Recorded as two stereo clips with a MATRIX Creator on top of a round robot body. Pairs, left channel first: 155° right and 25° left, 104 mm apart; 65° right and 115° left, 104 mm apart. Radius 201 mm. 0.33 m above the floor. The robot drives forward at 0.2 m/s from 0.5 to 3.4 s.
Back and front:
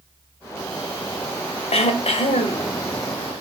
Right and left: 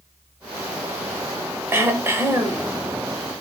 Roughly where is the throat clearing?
Behind.